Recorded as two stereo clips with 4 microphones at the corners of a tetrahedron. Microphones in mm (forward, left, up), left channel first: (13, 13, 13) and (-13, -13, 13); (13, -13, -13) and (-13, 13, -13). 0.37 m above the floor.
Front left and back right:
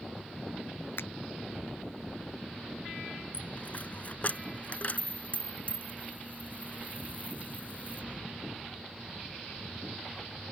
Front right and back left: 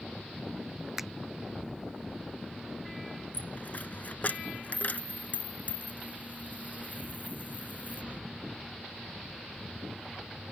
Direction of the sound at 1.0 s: 55° left.